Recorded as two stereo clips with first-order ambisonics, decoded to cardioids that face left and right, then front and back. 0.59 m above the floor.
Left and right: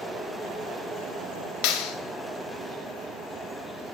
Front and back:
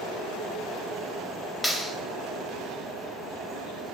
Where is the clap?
80° left, 2 m.